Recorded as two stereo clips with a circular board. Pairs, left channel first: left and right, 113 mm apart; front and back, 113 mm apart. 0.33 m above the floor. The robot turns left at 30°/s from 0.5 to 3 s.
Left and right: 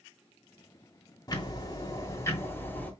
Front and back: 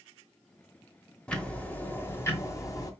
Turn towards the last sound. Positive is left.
turn(degrees=25)